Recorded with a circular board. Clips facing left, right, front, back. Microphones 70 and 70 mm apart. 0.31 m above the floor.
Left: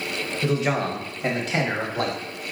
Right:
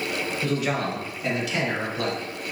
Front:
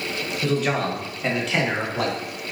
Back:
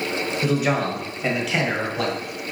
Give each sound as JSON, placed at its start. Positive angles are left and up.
{"t": 0.4, "sound": "a man speaking", "azimuth_deg": 125, "distance_m": 1.0}